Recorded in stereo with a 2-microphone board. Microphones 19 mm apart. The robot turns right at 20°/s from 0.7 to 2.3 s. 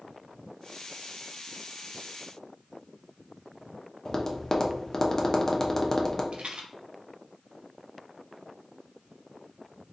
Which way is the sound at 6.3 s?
80° right.